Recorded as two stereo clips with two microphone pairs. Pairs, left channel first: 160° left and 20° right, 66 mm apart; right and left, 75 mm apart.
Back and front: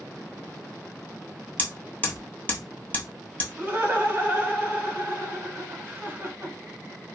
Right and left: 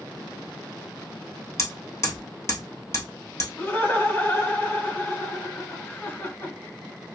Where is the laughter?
55° right, 1.4 m.